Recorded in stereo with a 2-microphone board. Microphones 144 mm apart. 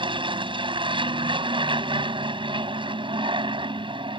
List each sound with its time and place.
0.0 s an aircraft: 35° right (ahead or behind)